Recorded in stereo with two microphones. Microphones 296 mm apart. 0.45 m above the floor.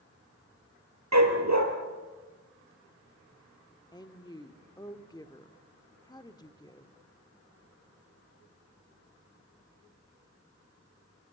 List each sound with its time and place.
1.1 s a dog barking: 70° right (ahead or behind), 3 m
3.9 s a woman speaking: 15° left (ahead or behind), 1.1 m